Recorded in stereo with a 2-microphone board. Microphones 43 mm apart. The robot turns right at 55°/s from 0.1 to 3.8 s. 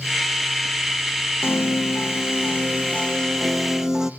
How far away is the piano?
About 0.7 m.